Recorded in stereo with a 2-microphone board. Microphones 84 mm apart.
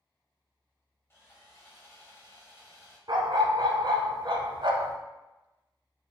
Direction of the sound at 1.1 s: 30° left (ahead or behind).